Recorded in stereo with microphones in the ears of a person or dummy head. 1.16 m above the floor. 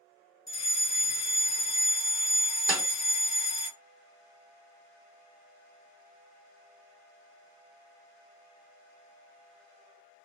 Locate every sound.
0.5 s a fire alarm: 15° left (ahead or behind), 1.0 m
2.7 s a snare drum: 10° right (ahead or behind), 0.6 m